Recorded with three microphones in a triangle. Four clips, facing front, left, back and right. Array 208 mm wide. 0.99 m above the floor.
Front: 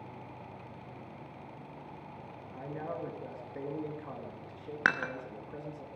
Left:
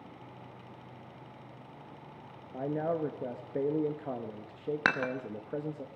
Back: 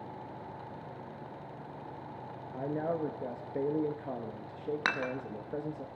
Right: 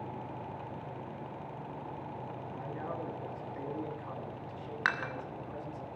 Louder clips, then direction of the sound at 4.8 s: Left 3 dB, front 5 dB; 70° left.